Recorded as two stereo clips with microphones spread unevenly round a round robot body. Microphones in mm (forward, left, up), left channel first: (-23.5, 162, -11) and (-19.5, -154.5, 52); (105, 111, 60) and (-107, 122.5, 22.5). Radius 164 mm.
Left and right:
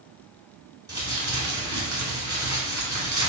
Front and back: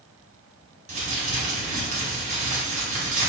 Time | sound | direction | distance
0.9 | crumpling | 175° right | 1.5 m